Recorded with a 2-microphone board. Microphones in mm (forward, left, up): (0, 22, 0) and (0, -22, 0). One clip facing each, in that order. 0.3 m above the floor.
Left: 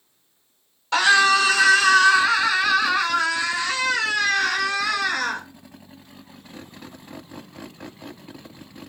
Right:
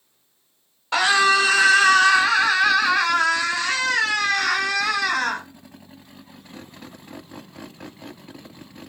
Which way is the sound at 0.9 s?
15° right (ahead or behind).